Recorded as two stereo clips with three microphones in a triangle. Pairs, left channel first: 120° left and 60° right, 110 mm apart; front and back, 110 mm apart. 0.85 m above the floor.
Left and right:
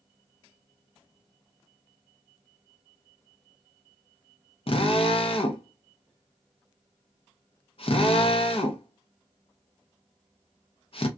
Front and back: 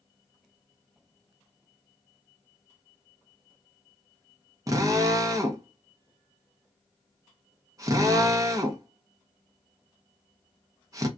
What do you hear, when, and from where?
4.7 s a drill: 125° left, 0.5 m